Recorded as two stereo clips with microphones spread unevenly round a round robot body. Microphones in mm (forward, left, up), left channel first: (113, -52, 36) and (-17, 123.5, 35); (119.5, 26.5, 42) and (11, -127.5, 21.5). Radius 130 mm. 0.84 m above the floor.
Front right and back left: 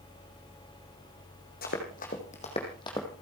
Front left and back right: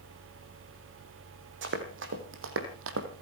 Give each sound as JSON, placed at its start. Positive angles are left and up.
{"t": 1.6, "sound": "running footsteps", "azimuth_deg": -110, "distance_m": 3.5}